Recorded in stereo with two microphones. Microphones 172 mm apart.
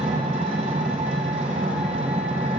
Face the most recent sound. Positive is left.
turn(degrees=-40)  # may be behind; listen again after turning